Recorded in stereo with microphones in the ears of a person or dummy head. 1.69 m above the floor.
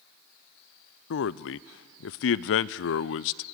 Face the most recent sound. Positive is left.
turn(degrees=65)  # may be behind; listen again after turning